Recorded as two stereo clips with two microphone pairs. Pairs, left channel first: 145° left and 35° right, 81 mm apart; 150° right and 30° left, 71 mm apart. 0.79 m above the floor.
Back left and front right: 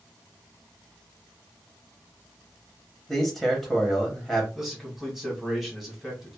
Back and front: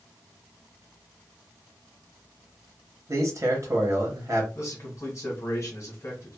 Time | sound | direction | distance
3.1 | a man speaking | 60° left | 0.9 m
4.5 | a man speaking | 125° right | 1.1 m